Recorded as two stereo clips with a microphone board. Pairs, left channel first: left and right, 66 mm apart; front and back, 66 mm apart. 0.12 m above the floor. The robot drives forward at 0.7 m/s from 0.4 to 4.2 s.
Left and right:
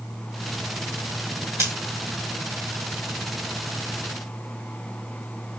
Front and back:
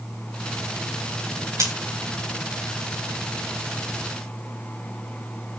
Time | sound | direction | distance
1.6 | scissors | 140° right | 3.5 m